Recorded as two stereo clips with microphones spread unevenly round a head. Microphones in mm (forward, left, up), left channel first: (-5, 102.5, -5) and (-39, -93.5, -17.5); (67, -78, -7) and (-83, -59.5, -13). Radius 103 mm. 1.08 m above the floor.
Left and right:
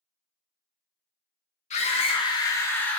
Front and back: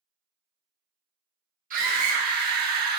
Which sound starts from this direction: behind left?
A scream, at 1.7 s.